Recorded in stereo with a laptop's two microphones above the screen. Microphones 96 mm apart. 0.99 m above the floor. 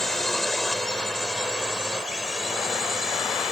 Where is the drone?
5° left (ahead or behind); by 3.5 s 5° right (ahead or behind).